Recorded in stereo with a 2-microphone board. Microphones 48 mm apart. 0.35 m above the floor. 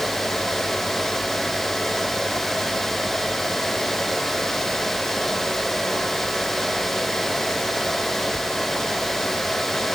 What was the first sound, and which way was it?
Only background noise.